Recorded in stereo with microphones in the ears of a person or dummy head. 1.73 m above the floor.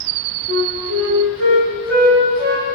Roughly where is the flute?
Right.